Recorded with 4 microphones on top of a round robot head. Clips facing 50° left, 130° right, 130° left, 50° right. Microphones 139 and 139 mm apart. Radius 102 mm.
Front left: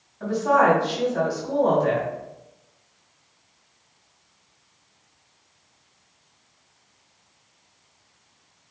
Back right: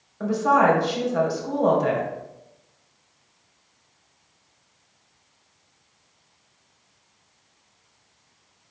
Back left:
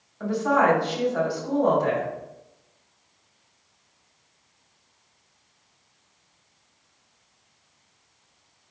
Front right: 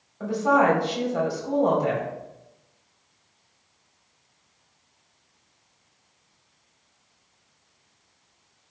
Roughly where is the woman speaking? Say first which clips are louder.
Even, front right 1 dB; behind right.